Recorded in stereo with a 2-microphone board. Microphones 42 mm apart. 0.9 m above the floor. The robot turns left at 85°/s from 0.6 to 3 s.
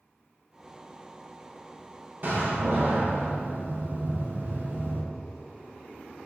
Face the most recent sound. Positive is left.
turn(degrees=-115)